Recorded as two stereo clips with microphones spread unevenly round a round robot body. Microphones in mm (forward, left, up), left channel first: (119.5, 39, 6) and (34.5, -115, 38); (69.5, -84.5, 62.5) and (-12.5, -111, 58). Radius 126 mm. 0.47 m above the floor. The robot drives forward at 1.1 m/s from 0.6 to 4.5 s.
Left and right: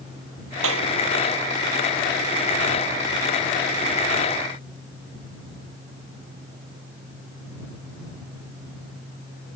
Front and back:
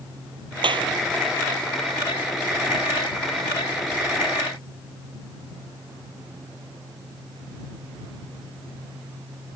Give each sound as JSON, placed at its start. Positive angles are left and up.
{"t": 0.6, "sound": "a clap", "azimuth_deg": -140}